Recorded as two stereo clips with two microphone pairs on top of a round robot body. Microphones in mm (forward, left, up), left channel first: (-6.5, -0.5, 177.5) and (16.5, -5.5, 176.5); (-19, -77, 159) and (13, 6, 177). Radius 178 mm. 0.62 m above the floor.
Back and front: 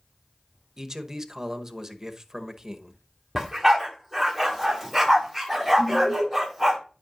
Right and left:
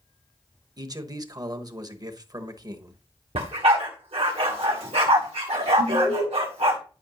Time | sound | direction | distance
0.8 | a man speaking | 40° left | 1.2 m
3.4 | a dog barking | 75° left | 1.6 m
5.8 | an alarm | 150° right | 5.5 m